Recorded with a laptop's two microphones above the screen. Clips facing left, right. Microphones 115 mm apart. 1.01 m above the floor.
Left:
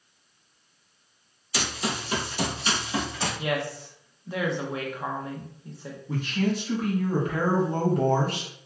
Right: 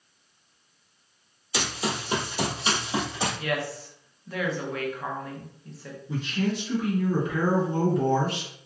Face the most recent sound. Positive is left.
turn(degrees=50)  # may be behind; listen again after turning